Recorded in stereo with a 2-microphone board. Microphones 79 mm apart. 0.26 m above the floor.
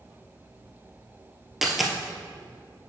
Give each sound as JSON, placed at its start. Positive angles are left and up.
{"t": 1.6, "sound": "a dropped coin", "side_deg": -5, "distance_m": 1.0}